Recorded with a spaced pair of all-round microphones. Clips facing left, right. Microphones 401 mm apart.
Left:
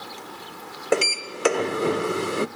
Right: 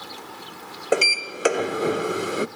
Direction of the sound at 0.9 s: 5° left (ahead or behind).